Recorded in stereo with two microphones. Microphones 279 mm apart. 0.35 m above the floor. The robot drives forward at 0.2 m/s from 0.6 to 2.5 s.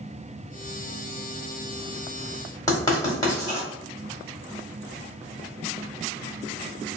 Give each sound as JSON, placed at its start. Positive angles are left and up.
{"t": 2.7, "sound": "writing", "side_deg": 15, "distance_m": 1.2}